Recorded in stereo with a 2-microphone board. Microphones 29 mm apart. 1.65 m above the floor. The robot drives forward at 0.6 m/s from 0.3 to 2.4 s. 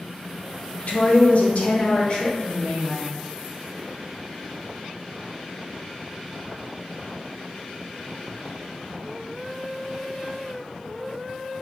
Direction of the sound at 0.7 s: 55° left (ahead or behind).